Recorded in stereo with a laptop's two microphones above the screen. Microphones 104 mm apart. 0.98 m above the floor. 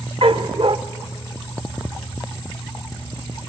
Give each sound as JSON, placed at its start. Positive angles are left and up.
{"t": 0.2, "sound": "a dog barking", "side_deg": -55, "distance_m": 0.9}